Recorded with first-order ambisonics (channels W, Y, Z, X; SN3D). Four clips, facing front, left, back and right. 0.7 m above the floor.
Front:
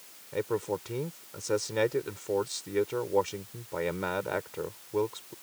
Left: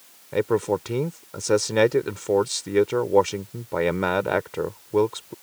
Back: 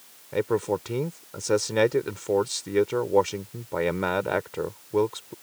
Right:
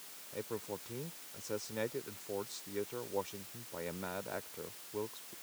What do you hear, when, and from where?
0.3 s a man speaking: 110° left